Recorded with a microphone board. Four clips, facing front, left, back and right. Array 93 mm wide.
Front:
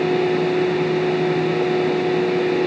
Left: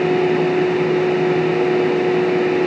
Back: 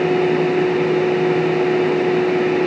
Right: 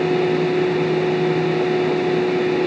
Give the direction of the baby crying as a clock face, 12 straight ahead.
I don't hear a baby crying.